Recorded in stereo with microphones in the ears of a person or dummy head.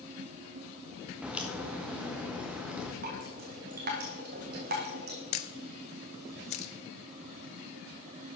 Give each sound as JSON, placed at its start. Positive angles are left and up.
{"t": 1.2, "sound": "a crack", "side_deg": -5, "distance_m": 0.9}
{"t": 3.0, "sound": "dripping", "side_deg": -50, "distance_m": 1.5}
{"t": 5.3, "sound": "a camera shutter", "side_deg": 35, "distance_m": 0.5}